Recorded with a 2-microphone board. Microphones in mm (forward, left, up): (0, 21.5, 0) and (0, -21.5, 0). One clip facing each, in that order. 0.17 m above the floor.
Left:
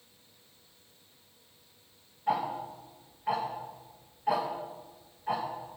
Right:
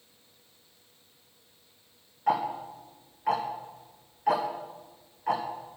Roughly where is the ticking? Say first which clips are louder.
Right 3 dB; right.